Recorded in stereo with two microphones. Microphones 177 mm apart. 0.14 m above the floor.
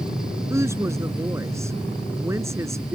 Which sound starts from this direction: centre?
A woman speaking, at 0.5 s.